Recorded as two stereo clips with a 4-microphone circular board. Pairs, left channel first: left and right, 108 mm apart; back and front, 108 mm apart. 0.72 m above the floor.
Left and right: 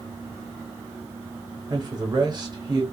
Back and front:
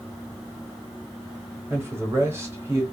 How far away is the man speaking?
About 1.1 m.